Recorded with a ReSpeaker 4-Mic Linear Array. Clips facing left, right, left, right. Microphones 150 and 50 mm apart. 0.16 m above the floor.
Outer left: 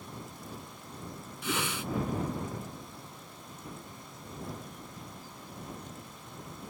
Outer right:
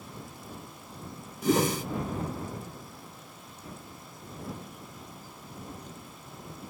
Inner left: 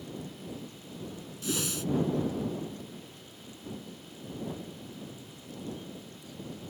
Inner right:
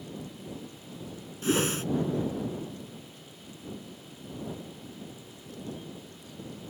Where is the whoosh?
40° right (ahead or behind).